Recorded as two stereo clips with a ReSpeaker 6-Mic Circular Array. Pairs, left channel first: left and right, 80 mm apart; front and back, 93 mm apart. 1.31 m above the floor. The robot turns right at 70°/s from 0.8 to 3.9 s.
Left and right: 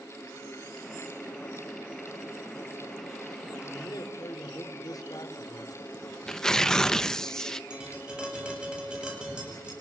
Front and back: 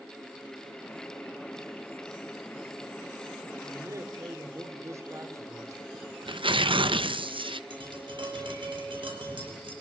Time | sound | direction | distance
3.6 | a man speaking | 105° left | 3.5 m
5.9 | tearing paper | 170° left | 1.0 m
7.7 | tapping | 165° right | 8.5 m